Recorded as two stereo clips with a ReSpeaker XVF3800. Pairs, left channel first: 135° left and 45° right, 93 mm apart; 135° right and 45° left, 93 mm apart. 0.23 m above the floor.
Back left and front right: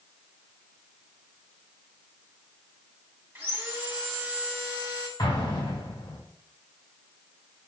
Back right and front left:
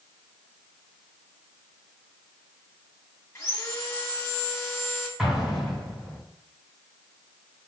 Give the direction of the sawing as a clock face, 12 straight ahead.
3 o'clock.